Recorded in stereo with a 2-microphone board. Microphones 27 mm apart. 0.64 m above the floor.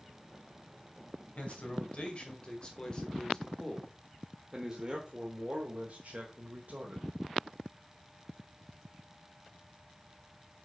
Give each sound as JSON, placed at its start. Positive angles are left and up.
{"t": 1.4, "sound": "a man speaking", "side_deg": 45, "distance_m": 2.5}